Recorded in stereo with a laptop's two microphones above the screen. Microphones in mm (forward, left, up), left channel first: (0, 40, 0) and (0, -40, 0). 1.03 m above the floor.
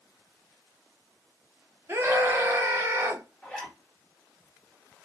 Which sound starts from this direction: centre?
A zipper, at 3.4 s.